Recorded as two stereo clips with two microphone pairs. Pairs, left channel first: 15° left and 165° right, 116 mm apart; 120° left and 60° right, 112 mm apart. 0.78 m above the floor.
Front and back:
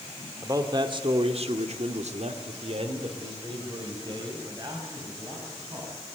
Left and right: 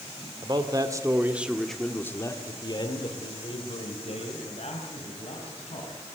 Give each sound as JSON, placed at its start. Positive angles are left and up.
{"t": 0.4, "sound": "a man speaking", "azimuth_deg": -105, "distance_m": 2.0}